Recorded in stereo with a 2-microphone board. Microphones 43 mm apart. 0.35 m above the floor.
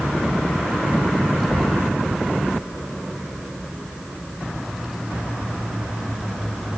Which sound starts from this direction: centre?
A child speaking, at 1.4 s.